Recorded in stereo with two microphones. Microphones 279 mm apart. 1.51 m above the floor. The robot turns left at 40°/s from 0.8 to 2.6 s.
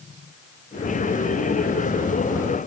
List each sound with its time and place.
Only background noise.